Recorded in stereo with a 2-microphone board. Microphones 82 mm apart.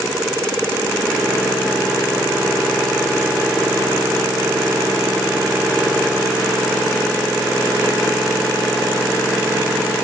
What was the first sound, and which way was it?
Only background noise.